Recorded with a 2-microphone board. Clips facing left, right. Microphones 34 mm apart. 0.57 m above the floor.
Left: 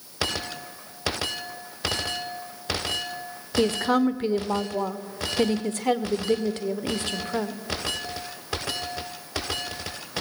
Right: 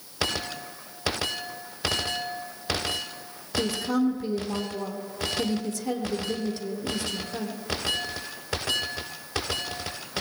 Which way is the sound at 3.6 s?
55° left (ahead or behind).